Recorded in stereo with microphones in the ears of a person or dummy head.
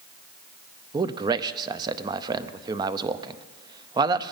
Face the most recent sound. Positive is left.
turn(degrees=-20)  # may be behind; listen again after turning